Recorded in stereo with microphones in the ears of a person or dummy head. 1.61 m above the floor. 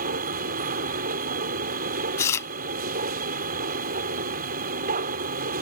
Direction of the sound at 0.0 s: 45° right (ahead or behind).